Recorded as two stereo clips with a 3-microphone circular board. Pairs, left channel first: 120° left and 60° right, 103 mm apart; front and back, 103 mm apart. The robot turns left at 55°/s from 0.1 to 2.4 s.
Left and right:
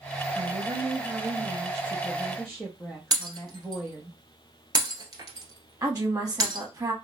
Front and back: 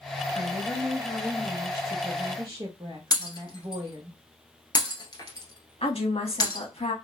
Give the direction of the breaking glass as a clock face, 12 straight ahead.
1 o'clock.